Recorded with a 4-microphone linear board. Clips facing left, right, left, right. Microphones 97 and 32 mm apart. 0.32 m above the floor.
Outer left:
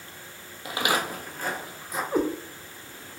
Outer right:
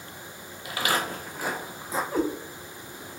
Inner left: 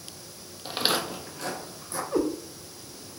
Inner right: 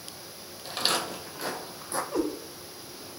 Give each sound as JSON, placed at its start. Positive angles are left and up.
{"t": 0.7, "sound": "footsteps", "side_deg": 30, "distance_m": 0.6}
{"t": 2.1, "sound": "a cat meowing", "side_deg": 20, "distance_m": 1.2}